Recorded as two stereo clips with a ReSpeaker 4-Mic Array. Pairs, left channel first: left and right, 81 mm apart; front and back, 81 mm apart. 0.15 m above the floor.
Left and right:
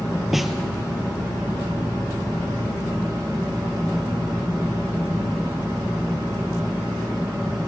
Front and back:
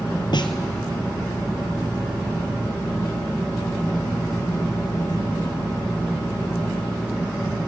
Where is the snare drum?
5° right, 1.5 m.